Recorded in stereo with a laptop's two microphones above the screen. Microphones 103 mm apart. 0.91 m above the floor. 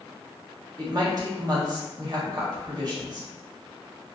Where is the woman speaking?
40° right (ahead or behind), 0.8 m.